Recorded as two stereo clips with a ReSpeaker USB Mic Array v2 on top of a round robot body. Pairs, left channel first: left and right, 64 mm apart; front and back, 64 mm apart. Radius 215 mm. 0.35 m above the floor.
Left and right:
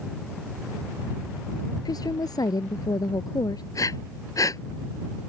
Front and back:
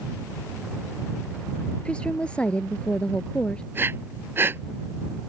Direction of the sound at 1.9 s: 75° left.